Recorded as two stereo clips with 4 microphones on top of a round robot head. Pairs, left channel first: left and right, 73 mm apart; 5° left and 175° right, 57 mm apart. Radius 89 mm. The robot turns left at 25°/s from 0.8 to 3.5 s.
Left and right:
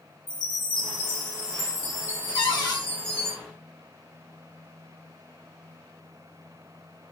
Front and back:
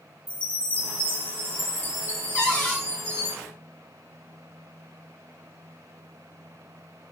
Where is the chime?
75° left, 1.6 m; by 3.4 s 10° left, 1.6 m.